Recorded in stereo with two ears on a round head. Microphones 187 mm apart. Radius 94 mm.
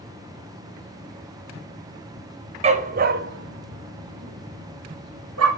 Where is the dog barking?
30° right (ahead or behind), 1.0 m; by 5.5 s 80° right, 2 m.